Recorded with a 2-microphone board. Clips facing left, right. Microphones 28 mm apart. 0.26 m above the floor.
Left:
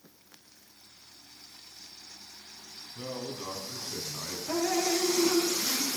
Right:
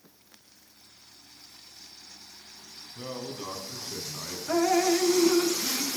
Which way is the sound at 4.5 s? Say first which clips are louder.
Right 5 dB; 55° right (ahead or behind).